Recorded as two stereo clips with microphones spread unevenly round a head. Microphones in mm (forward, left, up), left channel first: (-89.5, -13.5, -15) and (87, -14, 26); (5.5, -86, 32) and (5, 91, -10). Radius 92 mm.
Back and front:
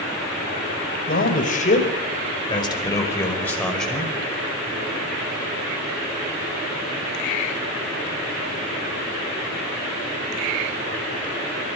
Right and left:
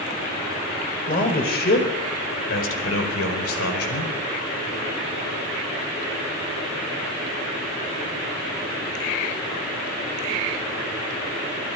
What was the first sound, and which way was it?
A man speaking, 140° right.